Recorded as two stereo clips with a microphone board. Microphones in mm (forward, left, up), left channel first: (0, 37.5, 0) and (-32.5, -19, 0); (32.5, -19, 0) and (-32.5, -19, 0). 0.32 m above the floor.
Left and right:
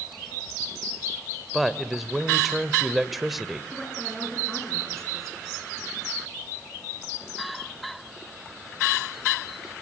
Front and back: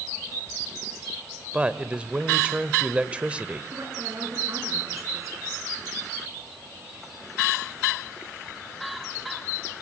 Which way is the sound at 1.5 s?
155° left.